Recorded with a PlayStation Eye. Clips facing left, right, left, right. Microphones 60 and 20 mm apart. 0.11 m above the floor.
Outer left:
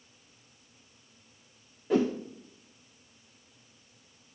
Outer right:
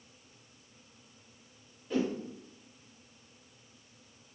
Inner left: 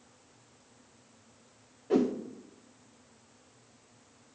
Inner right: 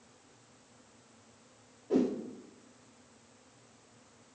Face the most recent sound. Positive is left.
turn(degrees=80)